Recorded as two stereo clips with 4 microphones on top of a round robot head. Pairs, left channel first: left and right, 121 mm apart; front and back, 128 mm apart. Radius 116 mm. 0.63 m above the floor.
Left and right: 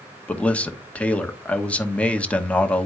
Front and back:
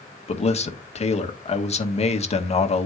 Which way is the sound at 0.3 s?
10° left.